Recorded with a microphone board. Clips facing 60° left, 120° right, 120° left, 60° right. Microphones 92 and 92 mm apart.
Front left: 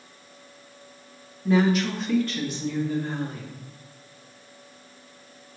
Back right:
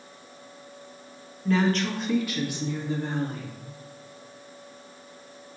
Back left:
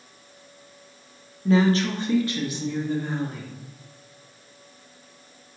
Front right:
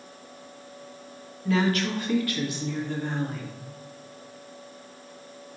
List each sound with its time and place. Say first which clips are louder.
1.4 s a woman speaking: front left 3 dB, back left 4 dB; 120° left, 1.0 m; by 3.5 s 155° right, 1.3 m